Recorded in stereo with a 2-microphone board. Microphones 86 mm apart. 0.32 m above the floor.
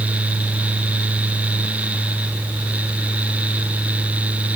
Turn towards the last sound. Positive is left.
No sound to turn to.